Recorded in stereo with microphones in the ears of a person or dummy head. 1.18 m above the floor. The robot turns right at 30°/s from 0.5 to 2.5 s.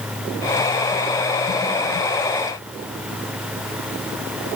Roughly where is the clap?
I don't hear a clap.